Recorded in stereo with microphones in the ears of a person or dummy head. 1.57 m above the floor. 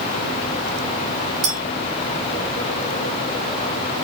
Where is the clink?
10° left (ahead or behind), 1.0 m.